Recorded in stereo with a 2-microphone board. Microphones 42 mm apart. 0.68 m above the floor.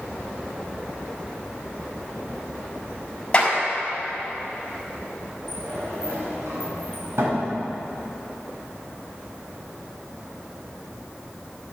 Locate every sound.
3.3 s a clap: 20° left (ahead or behind), 4.5 m
5.5 s a sliding door: 75° right (ahead or behind), 4 m